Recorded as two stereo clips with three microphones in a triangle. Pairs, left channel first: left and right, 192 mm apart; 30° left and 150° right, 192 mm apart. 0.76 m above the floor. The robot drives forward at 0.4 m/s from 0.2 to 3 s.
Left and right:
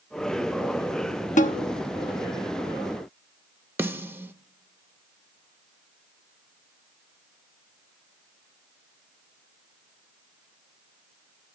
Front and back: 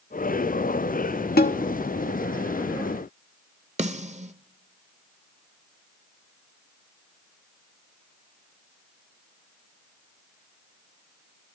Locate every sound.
1.4 s a snare drum: 50° left, 0.8 m; by 1.6 s 55° left, 0.8 m
3.8 s a snare drum: 165° right, 0.7 m